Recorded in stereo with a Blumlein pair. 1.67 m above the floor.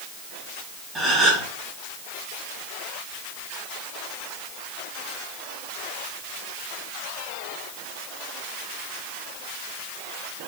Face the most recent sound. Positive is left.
turn(degrees=-10)